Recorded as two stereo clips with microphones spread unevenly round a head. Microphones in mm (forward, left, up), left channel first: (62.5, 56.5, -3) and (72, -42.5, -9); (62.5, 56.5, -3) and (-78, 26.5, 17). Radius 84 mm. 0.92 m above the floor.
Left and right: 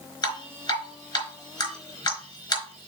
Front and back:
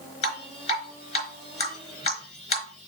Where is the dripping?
55° left, 4 m.